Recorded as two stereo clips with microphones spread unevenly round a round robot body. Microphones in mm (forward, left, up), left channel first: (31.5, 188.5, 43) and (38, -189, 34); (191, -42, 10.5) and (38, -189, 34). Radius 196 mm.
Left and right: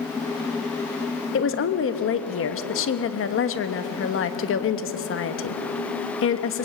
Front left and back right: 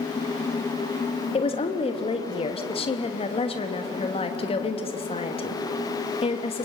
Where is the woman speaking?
65° left, 1.2 m.